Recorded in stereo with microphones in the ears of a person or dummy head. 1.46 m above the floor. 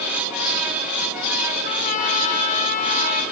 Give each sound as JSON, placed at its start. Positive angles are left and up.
{"t": 1.6, "sound": "a trumpet", "side_deg": 45, "distance_m": 1.4}